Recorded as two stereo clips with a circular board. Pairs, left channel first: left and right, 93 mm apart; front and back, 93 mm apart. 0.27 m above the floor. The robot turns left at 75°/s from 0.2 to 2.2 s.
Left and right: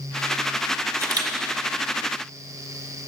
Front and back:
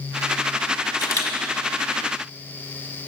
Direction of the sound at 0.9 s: 35° right.